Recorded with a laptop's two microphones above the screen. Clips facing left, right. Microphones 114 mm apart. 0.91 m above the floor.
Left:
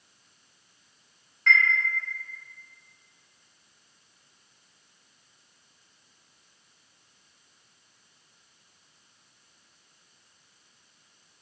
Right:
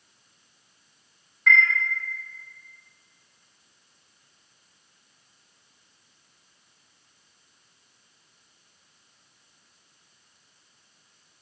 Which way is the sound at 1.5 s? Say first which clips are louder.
Right 3 dB; 5° right (ahead or behind).